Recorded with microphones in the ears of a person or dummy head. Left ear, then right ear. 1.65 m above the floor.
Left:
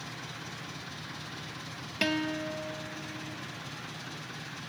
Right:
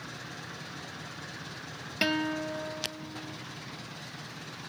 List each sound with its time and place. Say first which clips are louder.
2.0 s a guitar: right 1 dB; 15° right (ahead or behind), 0.7 m